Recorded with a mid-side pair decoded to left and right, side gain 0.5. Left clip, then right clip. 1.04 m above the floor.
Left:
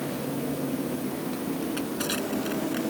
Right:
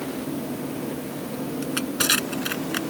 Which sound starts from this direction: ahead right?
Crushing, at 1.6 s.